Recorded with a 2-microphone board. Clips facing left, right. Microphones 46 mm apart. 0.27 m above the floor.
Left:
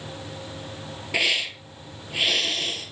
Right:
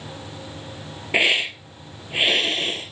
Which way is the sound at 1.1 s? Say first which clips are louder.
Right 5 dB; 25° right (ahead or behind).